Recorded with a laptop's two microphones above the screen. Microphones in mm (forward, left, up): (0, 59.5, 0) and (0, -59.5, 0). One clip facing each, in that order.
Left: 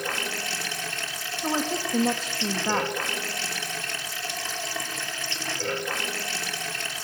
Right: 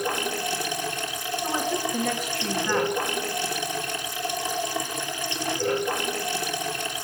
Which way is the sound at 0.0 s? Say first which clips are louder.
Right 5 dB; 15° right (ahead or behind).